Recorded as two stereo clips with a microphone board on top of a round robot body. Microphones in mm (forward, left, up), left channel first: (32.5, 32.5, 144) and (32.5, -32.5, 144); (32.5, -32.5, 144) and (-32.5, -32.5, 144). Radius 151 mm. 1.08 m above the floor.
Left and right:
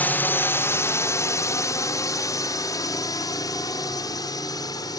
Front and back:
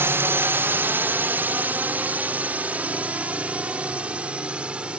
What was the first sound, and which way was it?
A drone, 145° left.